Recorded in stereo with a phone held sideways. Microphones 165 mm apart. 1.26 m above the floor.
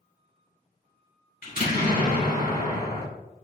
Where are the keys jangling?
No keys jangling in this recording.